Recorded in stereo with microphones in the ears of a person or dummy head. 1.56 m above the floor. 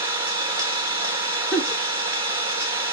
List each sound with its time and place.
0.0 s an engine running: 25° right (ahead or behind), 1.4 m
1.5 s a giggle: centre (ahead or behind), 1.2 m